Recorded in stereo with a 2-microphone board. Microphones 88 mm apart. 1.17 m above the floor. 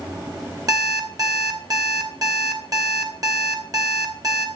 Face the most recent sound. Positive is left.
turn(degrees=-45)  # may be behind; listen again after turning